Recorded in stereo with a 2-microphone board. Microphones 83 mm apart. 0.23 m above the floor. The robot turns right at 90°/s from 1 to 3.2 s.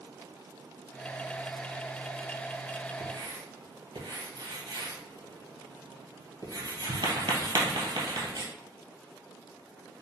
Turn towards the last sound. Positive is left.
turn(degrees=-70)  # may be behind; listen again after turning